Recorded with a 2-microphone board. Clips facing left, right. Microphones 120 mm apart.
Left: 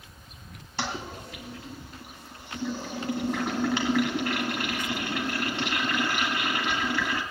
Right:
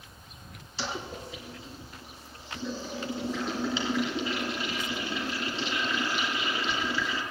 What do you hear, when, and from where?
0.8 s a toilet flushing: 60° left (ahead or behind), 2.5 m